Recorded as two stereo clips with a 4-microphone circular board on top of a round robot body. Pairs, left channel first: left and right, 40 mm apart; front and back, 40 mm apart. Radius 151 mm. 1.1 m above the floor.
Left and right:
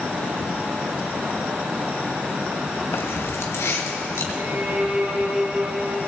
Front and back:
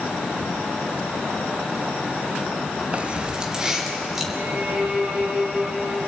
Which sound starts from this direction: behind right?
A violin, at 4.3 s.